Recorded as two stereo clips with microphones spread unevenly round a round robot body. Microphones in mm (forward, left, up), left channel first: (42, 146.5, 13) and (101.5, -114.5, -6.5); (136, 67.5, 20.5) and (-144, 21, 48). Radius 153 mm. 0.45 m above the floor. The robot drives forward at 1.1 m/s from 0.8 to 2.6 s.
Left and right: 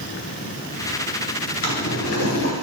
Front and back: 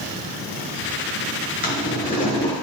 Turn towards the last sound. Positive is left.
turn(degrees=85)